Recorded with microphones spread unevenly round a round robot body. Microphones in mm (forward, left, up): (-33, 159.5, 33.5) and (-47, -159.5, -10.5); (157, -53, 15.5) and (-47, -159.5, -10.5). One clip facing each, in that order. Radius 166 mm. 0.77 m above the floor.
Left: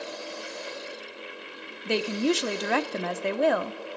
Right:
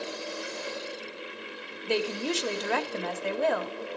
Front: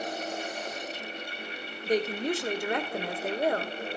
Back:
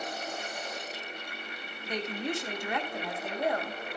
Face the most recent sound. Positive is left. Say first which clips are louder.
# left 4 dB, front 7 dB
turn(degrees=90)